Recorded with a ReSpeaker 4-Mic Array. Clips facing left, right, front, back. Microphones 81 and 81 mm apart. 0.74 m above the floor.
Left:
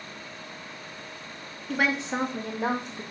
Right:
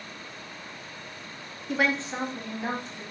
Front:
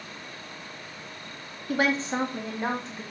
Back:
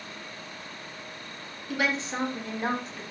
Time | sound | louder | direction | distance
1.7 | a woman speaking | even, front 4 dB | 15° right | 0.7 m